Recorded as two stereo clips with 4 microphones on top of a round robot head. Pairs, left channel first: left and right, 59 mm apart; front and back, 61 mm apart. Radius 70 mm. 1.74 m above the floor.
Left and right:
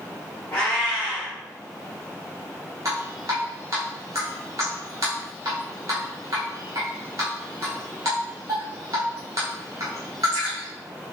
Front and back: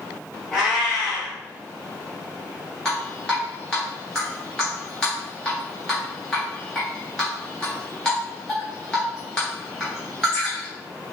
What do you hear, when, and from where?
0.5 s a cat meowing: 95° left, 1.1 m
2.9 s dripping: 80° right, 0.8 m